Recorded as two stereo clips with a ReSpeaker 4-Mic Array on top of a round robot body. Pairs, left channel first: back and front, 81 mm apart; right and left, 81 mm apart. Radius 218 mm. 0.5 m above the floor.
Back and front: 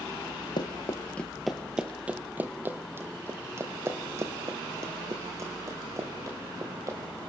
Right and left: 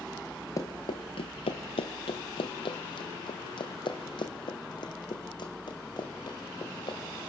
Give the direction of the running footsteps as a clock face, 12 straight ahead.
5 o'clock.